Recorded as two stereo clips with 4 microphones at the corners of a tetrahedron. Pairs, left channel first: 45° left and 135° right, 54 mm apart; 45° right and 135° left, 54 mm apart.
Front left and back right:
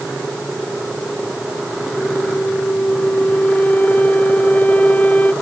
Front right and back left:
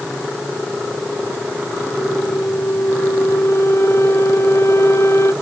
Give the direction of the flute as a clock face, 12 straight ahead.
1 o'clock.